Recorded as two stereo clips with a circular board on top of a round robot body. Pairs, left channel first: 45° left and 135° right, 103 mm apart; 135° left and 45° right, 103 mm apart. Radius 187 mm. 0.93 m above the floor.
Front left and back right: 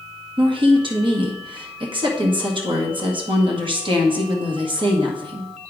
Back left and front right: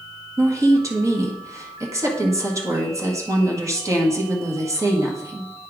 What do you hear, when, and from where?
0.4 s a woman speaking: 105° right, 1.7 m